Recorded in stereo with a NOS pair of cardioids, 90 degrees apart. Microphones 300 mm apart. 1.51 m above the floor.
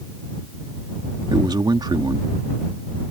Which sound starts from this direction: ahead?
A man speaking, at 1.3 s.